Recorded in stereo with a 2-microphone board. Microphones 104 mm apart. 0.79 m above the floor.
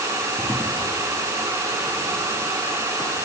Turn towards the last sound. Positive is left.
No sound to turn to.